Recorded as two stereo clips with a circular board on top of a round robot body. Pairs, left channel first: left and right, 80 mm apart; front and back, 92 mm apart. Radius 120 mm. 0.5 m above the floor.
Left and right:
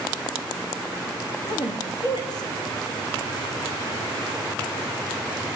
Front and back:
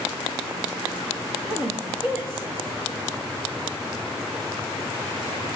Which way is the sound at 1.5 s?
105° left.